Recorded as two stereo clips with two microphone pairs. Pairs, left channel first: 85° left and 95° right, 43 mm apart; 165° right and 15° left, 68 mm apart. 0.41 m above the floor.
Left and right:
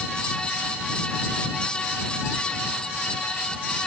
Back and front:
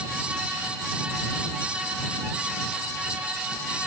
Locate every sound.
Only background noise.